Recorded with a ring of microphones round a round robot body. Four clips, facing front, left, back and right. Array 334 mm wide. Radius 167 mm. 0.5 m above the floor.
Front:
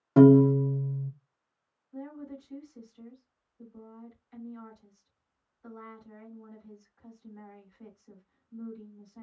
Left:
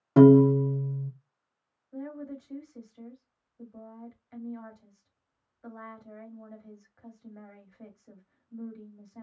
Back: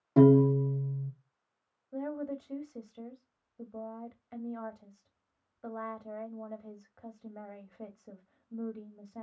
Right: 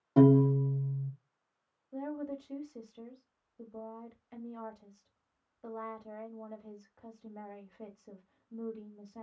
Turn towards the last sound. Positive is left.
turn(degrees=-165)